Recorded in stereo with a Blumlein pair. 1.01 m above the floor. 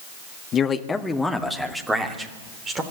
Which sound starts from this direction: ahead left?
A man speaking, at 0.5 s.